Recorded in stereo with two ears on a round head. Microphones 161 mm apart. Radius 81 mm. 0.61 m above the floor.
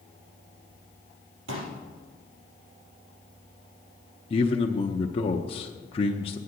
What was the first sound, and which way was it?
A pop, 85° right.